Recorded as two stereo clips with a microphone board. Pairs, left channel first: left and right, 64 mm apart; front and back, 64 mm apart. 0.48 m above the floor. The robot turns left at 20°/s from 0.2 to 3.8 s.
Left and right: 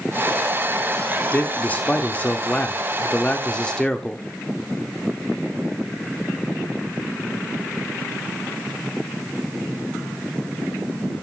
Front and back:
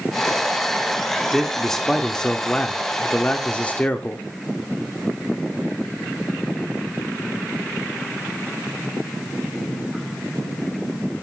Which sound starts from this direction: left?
A man speaking, at 1.3 s.